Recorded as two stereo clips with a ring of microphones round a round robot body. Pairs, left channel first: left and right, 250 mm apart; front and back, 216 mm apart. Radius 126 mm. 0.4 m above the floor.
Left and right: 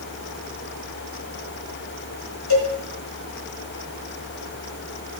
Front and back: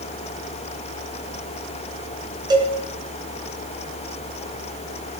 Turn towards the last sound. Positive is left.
turn(degrees=110)